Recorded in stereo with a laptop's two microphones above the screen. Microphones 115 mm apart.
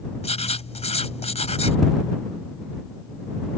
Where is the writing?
65° left (ahead or behind).